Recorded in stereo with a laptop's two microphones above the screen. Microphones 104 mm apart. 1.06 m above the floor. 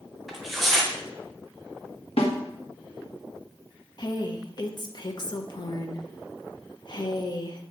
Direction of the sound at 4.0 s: 45° left (ahead or behind).